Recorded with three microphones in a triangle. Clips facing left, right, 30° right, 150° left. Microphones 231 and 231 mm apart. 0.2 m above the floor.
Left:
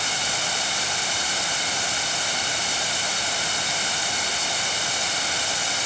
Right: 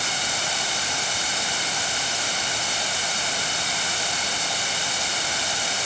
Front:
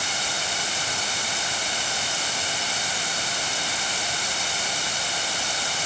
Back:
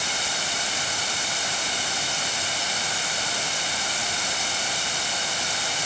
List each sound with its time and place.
Only background noise.